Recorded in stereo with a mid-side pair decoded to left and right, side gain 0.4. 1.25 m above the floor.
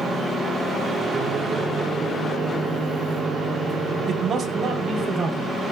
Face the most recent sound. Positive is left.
turn(degrees=-60)